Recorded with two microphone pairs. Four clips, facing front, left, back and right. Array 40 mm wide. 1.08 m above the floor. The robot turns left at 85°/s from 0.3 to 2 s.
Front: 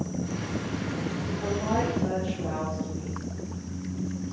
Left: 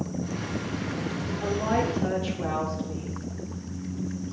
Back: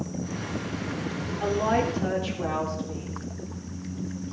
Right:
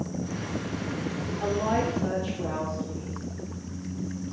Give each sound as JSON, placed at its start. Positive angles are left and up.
{"t": 1.4, "sound": "a woman speaking", "azimuth_deg": -160, "distance_m": 3.5}